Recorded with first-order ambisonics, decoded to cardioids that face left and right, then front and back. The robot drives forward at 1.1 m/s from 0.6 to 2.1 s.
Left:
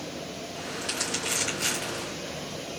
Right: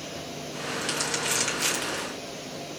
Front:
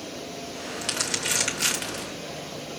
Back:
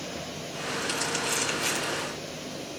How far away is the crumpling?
About 3.5 m.